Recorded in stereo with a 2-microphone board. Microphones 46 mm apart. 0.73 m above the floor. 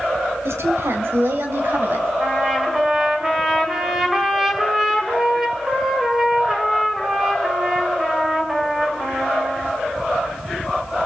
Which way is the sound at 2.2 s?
10° right (ahead or behind).